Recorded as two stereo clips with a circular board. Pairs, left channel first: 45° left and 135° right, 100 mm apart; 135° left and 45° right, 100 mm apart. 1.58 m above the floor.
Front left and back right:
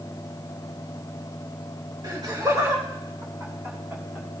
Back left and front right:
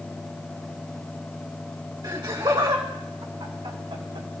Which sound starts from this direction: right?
Laughter, at 2.0 s.